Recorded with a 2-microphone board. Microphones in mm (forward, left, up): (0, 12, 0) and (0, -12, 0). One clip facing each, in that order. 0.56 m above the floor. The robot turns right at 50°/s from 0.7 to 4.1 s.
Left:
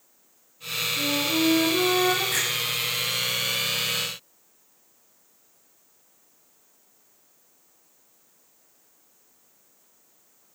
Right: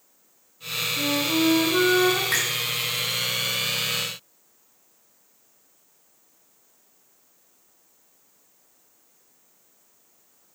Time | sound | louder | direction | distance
1.0 | a flute | right 1 dB | 155° right | 5.5 m
2.3 | a finger snap | right 2 dB | 70° right (ahead or behind) | 5.5 m